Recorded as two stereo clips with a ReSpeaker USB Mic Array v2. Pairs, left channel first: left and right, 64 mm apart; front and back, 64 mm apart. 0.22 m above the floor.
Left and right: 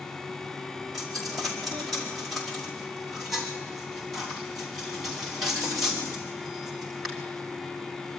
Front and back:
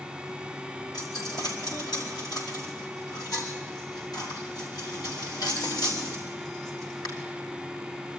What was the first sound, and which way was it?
A dropped coin, straight ahead.